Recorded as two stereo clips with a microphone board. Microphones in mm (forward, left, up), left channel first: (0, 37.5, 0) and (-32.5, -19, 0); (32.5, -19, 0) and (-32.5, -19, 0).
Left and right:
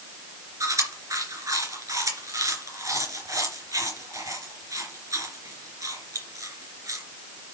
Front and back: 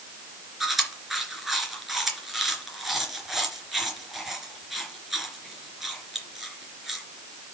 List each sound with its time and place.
0.6 s chewing: 95° right, 3 m